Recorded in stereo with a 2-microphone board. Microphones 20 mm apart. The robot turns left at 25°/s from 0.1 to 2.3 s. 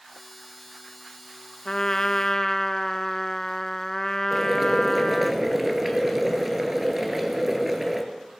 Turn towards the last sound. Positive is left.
turn(degrees=-10)  # may be behind; listen again after turning